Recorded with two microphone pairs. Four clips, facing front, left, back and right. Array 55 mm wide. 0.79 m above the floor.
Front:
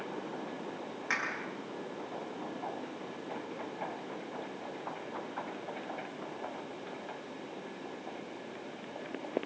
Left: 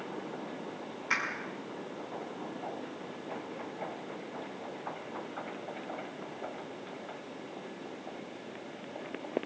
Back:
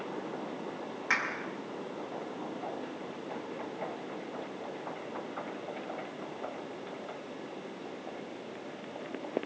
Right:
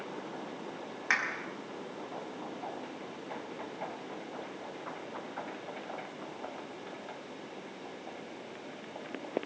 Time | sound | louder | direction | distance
1.1 | a clap | right 2 dB, back 3 dB | 110° right | 5.5 m